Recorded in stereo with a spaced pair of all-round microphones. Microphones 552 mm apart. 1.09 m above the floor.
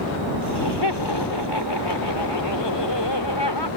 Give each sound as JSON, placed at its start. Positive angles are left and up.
{"t": 0.4, "sound": "laughter", "side_deg": 45}